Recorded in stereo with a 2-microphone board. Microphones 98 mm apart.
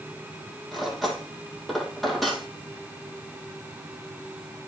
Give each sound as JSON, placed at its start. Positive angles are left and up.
{"t": 0.7, "sound": "cutlery clinking", "side_deg": 0, "distance_m": 3.0}